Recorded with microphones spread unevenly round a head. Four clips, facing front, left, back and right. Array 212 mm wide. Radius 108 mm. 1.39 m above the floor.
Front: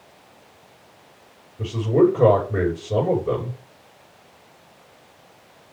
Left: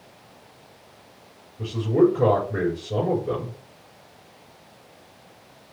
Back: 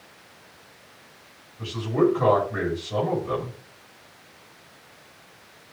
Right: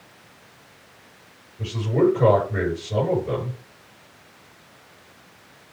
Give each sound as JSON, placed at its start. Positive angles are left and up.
{"t": 1.6, "sound": "a man speaking", "azimuth_deg": 20, "distance_m": 6.0}